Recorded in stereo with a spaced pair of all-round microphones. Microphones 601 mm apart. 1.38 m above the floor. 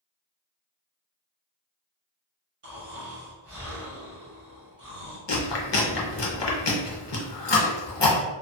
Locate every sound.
2.6 s snoring: 60° right (ahead or behind), 1.2 m
5.3 s chewing: 50° left (ahead or behind), 0.6 m